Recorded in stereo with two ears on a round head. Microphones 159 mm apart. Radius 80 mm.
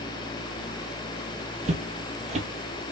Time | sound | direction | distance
1.6 | footsteps | 40° right (ahead or behind) | 0.6 m